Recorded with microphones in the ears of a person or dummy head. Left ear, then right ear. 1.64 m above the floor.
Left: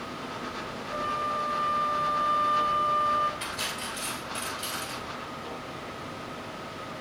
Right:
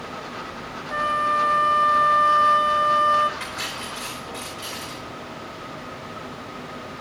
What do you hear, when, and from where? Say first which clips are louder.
0.9 s a flute: right 8 dB; 65° right (ahead or behind), 0.7 m
3.4 s cutlery clinking: right 3 dB; 30° right (ahead or behind), 4 m